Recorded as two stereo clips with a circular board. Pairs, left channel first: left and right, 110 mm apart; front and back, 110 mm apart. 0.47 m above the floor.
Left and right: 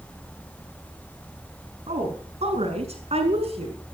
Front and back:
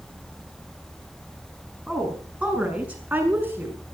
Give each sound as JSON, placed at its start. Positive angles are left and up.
{"t": 1.9, "sound": "a woman speaking", "azimuth_deg": -95, "distance_m": 5.5}